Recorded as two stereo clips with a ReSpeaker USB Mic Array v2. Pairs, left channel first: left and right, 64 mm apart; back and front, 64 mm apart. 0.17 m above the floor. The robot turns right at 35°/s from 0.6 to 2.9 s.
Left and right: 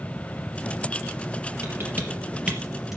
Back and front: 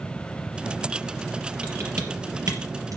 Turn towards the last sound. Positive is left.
turn(degrees=-5)